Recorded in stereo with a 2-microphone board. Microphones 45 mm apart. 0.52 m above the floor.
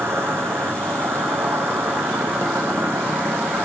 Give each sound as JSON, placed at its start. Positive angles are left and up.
{"t": 0.0, "sound": "an insect", "side_deg": -70, "distance_m": 1.7}